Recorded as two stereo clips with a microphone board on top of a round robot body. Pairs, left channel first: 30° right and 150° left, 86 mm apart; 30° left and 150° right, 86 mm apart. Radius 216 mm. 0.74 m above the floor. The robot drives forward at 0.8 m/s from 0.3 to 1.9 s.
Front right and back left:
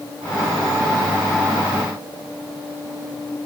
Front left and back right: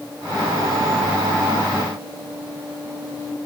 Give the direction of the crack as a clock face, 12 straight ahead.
No crack in this recording.